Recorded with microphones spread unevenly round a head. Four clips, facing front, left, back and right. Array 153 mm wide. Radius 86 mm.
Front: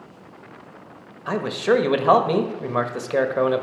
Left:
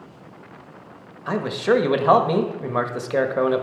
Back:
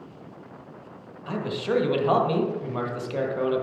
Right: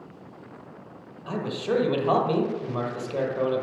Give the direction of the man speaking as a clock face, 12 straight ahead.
10 o'clock.